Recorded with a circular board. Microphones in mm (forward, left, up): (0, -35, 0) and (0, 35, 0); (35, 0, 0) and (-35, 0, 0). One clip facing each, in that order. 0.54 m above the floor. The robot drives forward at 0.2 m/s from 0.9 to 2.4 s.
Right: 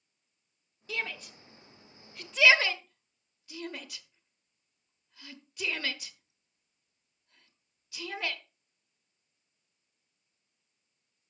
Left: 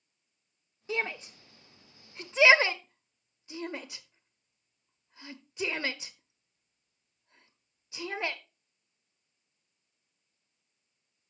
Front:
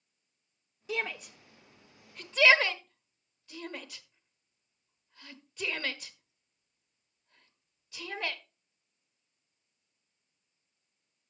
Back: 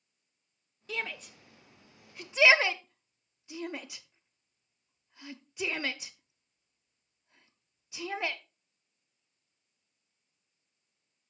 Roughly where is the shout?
Ahead left.